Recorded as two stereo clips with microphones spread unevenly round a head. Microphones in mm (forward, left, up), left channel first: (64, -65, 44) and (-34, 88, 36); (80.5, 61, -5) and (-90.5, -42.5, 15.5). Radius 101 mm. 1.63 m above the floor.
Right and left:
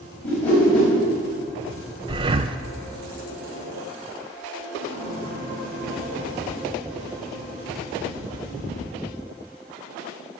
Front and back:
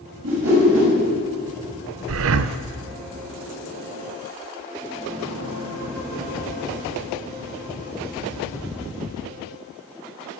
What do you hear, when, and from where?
0.2 s a whoosh: 140° right, 6.5 m
2.1 s breathing: 170° right, 0.6 m